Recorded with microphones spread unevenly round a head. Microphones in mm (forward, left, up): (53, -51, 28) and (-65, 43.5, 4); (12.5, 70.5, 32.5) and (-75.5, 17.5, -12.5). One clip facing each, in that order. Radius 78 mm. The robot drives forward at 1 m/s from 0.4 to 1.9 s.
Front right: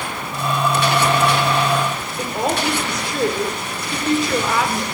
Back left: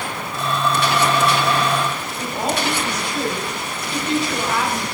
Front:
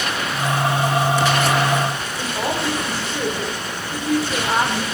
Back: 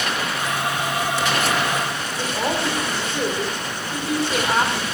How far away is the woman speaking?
About 3 m.